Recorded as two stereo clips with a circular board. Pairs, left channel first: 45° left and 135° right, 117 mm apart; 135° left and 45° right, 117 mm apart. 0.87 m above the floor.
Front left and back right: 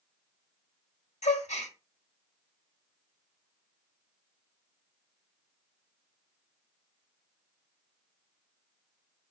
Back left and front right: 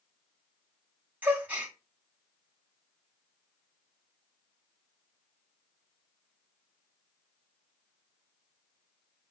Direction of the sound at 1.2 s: 35° left.